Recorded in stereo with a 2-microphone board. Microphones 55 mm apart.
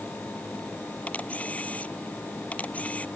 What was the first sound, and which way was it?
A camera shutter, 30° left (ahead or behind).